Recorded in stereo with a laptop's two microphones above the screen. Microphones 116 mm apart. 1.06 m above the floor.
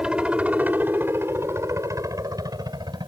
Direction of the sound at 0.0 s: 10° right (ahead or behind).